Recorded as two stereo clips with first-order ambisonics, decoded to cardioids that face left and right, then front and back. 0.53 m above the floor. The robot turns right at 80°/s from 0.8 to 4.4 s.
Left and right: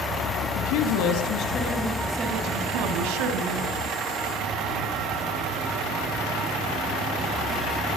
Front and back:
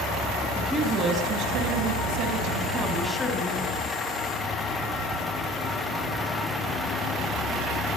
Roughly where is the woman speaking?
Left.